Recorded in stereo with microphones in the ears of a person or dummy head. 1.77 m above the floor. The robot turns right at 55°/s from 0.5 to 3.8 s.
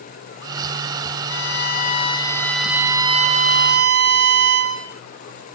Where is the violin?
105° left, 1.7 m; by 4.9 s 115° right, 1.7 m.